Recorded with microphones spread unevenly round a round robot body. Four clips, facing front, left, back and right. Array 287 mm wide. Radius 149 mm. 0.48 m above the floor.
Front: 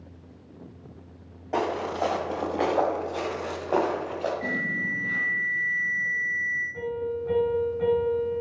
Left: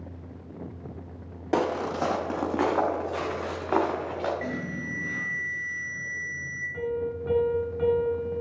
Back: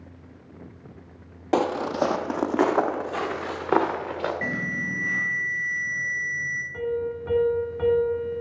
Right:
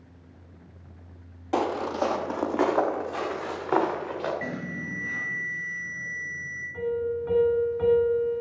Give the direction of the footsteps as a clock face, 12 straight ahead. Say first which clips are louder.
Even, back 4 dB; 7 o'clock.